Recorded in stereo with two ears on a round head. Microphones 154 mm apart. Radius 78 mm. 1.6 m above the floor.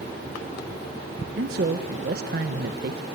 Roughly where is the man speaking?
Right.